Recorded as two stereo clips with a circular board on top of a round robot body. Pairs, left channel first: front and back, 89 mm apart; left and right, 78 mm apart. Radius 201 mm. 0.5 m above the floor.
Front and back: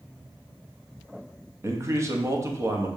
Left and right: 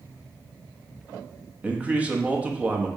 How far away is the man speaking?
About 1.4 m.